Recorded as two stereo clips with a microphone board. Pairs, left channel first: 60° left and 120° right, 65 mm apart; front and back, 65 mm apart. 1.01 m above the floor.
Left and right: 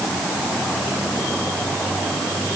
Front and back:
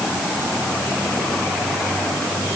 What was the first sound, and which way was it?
Only background noise.